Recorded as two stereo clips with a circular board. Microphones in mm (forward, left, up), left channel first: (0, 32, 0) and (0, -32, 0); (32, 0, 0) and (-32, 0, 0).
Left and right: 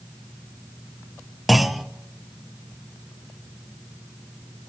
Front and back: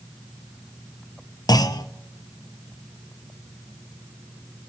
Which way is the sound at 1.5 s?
Straight ahead.